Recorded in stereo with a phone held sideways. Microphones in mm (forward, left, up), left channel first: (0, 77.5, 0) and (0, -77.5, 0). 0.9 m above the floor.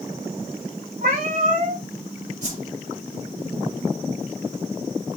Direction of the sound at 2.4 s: 45° right (ahead or behind).